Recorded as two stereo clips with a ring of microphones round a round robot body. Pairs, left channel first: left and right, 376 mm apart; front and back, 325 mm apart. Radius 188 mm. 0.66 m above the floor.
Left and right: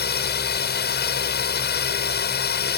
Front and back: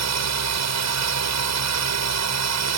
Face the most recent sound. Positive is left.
turn(degrees=150)